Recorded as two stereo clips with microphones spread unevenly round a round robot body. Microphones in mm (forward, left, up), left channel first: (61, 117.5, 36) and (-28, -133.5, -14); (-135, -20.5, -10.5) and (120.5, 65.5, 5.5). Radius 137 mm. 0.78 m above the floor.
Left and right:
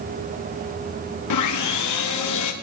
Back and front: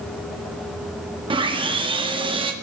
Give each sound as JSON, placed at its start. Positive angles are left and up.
{"t": 1.3, "sound": "sawing", "azimuth_deg": 90, "distance_m": 1.6}